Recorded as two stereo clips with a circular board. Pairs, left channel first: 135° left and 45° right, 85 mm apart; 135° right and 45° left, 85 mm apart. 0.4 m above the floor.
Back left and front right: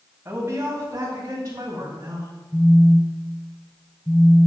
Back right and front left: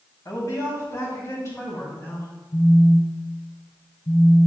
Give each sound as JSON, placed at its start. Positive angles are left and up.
{"t": 0.2, "sound": "a woman speaking", "azimuth_deg": -100, "distance_m": 2.5}
{"t": 2.5, "sound": "a phone buzzing", "azimuth_deg": -130, "distance_m": 1.2}